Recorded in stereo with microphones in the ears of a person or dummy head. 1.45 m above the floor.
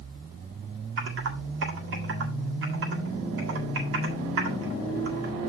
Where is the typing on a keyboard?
65° right (ahead or behind), 1.7 m.